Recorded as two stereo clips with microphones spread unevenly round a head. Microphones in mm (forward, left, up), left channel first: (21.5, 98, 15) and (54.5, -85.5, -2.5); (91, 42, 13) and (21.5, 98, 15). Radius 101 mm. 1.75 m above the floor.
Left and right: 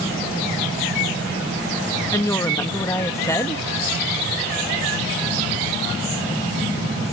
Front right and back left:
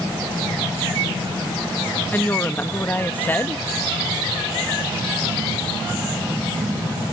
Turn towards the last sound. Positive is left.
turn(degrees=30)